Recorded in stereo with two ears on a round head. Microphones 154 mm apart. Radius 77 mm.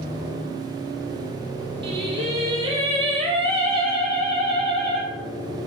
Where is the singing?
30° right (ahead or behind), 1.5 m.